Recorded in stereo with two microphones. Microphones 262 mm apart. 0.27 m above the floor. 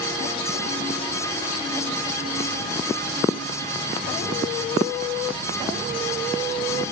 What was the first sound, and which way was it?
Only background noise.